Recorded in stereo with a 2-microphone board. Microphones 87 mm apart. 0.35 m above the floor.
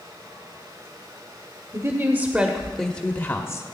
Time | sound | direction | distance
1.7 | a woman speaking | 35° right (ahead or behind) | 1.0 m